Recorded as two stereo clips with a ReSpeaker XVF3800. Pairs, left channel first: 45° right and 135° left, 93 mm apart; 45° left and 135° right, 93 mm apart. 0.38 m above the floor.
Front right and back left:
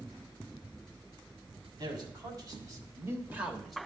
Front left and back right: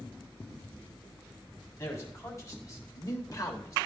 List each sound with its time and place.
1.8 s a man speaking: 100° left, 2.5 m; by 3.8 s 40° left, 1.1 m